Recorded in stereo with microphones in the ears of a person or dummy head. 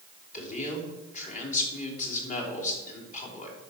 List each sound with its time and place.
0.3 s a man speaking: 35° left (ahead or behind), 3.5 m